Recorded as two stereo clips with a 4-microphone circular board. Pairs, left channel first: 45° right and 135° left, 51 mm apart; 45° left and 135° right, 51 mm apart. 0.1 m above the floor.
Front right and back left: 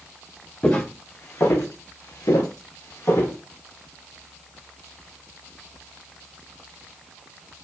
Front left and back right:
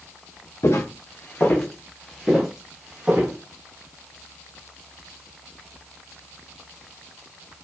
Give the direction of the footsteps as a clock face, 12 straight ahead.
11 o'clock.